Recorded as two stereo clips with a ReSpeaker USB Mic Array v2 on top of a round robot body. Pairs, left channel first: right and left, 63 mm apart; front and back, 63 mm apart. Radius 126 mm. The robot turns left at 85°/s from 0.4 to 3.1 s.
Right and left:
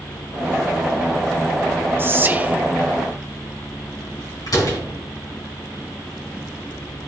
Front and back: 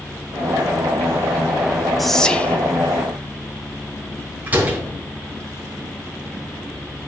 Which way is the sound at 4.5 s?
115° right.